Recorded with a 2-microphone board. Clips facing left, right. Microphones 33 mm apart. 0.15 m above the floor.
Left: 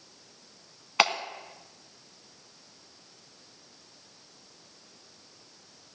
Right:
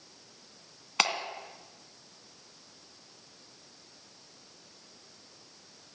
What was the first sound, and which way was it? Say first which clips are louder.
A clap: left 4 dB; 15° left (ahead or behind).